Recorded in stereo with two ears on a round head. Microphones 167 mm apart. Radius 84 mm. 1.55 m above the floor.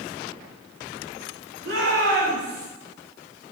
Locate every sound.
1.6 s a shout: 80° right, 9 m; by 2.7 s 75° right (ahead or behind), 9 m